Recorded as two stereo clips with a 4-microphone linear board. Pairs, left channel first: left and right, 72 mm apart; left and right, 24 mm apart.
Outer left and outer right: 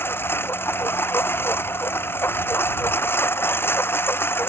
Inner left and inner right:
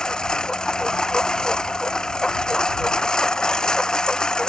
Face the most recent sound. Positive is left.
turn(degrees=30)  # may be behind; listen again after turning